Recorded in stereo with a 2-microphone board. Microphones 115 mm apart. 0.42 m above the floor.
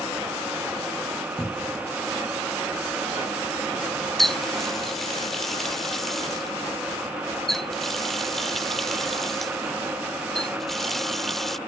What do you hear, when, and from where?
1.4 s a cupboard door: 10° left (ahead or behind)
4.2 s a running tap: centre (ahead or behind)